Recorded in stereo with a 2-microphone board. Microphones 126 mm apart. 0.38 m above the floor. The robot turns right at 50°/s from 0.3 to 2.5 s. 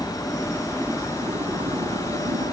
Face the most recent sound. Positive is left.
turn(degrees=-65)  # may be behind; listen again after turning